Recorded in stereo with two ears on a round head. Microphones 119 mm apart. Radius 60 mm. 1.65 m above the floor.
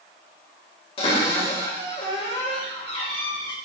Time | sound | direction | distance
1.0 | a cupboard door | 45° left (ahead or behind) | 2 m